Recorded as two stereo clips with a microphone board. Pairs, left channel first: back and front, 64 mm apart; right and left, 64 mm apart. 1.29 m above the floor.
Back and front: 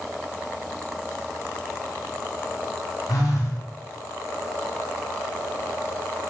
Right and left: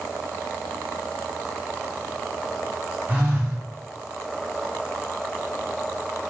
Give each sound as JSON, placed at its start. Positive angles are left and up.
{"t": 3.1, "sound": "a phone buzzing", "azimuth_deg": 155, "distance_m": 0.6}